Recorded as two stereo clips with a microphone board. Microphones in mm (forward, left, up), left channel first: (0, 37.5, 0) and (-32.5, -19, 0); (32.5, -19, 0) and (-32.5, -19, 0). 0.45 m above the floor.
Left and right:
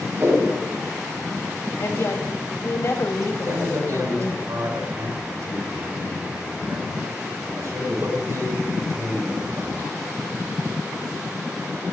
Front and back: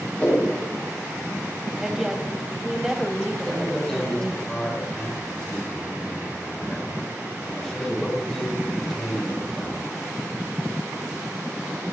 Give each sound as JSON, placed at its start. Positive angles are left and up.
{"t": 0.2, "sound": "a whoosh", "azimuth_deg": -60, "distance_m": 10.0}
{"t": 1.8, "sound": "a woman speaking", "azimuth_deg": 100, "distance_m": 2.0}
{"t": 3.4, "sound": "a man speaking", "azimuth_deg": -80, "distance_m": 8.0}